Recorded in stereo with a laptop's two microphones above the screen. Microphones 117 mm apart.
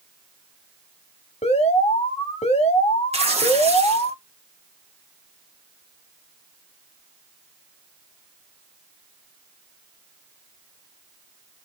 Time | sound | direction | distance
1.4 | an alarm | 65° left (ahead or behind) | 1.2 m
3.1 | tearing paper | 65° right (ahead or behind) | 1.0 m